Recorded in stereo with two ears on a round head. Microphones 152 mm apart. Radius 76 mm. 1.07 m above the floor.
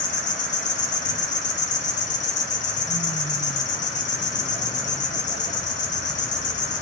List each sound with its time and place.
0.0 s an insect: 45° left (ahead or behind), 0.7 m